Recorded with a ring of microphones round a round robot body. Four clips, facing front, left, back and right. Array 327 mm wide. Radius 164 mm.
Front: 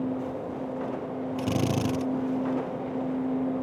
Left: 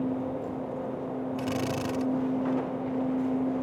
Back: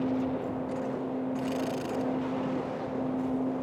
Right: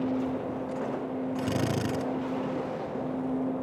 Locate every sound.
1.4 s a drill: 30° right